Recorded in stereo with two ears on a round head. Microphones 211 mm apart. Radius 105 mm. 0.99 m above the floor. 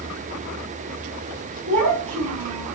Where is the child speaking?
30° right (ahead or behind), 5 m; by 2.7 s 20° right (ahead or behind), 4.5 m.